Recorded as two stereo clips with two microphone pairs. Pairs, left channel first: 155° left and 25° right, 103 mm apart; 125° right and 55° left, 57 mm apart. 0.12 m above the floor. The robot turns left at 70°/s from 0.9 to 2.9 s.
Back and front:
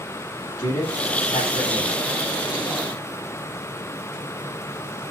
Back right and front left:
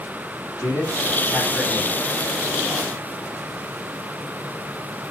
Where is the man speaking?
150° right, 6 m; by 1.9 s 140° left, 6 m.